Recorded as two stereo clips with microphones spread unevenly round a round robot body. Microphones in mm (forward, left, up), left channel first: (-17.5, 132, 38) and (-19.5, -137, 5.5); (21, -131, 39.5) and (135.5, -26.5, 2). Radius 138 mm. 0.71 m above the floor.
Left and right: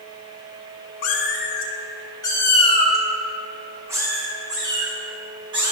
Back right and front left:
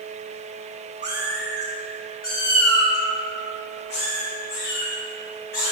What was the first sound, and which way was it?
A cat meowing, 120° left.